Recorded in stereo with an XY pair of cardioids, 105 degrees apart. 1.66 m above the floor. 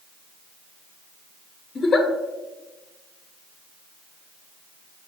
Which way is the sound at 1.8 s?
35° left.